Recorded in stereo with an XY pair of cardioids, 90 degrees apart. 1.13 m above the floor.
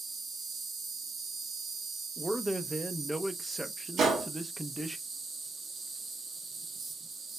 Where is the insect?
40° right, 1.6 m.